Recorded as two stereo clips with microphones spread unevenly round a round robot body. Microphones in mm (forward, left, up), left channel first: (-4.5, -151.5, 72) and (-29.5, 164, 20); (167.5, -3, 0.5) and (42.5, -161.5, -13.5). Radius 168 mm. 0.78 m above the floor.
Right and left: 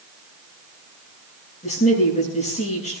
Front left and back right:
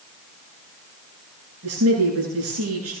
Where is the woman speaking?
155° right, 9.5 m.